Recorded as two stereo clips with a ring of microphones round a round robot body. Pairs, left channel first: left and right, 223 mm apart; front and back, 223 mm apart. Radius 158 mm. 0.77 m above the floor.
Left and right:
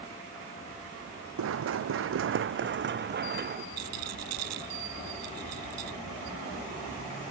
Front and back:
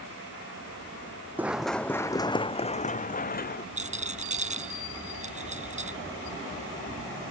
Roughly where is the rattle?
Behind right.